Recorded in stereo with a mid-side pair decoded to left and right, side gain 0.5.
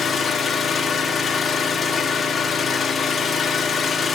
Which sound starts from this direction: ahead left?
An engine running, at 0.0 s.